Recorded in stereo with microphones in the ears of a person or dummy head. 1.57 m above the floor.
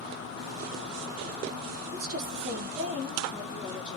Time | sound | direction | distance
1.9 | a woman speaking | 60° right (ahead or behind) | 0.7 m